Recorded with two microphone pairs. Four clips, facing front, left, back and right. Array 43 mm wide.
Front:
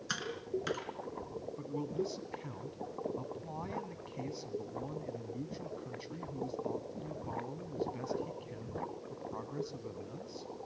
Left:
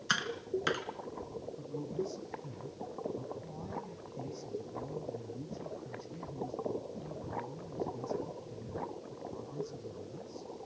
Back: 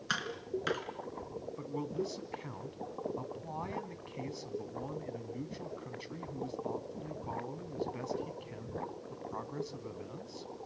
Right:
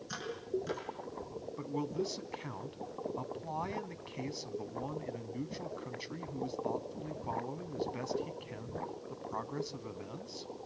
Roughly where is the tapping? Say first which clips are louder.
Left 5 dB, back 2 dB; left.